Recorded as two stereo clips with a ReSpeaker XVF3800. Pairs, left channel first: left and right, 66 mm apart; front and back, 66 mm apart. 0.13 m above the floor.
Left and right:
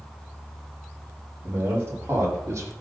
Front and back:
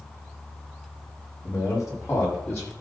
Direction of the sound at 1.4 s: 30° right.